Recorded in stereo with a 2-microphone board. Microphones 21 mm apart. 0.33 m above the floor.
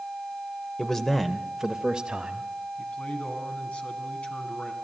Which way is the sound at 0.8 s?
30° left (ahead or behind).